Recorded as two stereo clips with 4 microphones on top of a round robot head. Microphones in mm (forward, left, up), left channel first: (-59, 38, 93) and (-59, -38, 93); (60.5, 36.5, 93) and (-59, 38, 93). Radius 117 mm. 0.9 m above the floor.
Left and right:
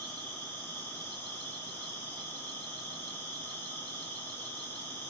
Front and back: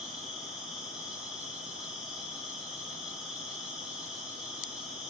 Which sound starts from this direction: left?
An insect, at 0.0 s.